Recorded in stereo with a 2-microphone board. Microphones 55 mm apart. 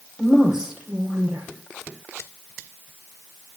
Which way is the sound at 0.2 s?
5° right (ahead or behind).